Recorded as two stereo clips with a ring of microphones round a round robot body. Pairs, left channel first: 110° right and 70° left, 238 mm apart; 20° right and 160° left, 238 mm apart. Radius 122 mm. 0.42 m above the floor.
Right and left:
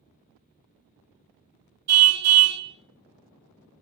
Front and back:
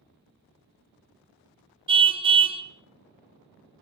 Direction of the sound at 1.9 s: 90° left.